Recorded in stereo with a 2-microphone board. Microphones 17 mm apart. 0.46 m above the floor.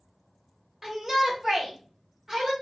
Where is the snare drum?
I don't hear a snare drum.